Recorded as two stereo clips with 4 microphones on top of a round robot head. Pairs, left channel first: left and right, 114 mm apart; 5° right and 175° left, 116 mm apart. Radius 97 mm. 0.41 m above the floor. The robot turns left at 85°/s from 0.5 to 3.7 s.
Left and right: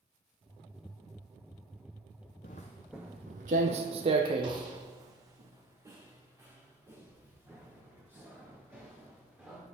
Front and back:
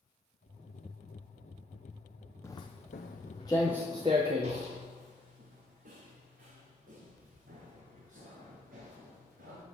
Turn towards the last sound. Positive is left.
turn(degrees=-170)